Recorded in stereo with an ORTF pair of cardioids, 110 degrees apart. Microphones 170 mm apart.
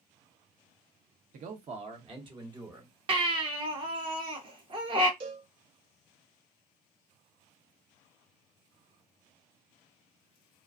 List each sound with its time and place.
1.3 s a man speaking: 50° right, 0.9 m; by 2.9 s 20° right, 1.4 m
3.1 s a baby crying: 30° right, 0.9 m
5.2 s a cowbell: 60° right, 0.9 m